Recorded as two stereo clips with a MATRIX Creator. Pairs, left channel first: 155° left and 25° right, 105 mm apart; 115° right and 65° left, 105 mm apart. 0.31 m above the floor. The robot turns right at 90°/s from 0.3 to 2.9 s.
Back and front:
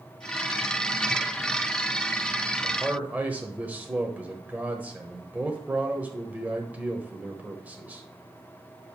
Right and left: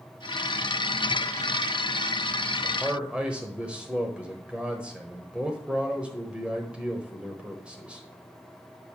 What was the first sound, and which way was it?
A man speaking, 10° right.